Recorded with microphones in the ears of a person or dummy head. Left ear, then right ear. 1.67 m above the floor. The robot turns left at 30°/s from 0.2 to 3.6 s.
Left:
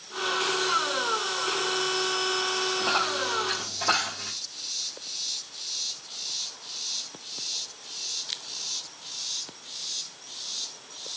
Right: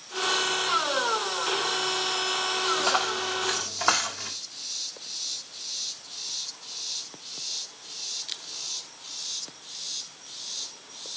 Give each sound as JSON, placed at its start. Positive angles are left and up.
{"t": 2.8, "sound": "a dropped coin", "side_deg": -70, "distance_m": 3.5}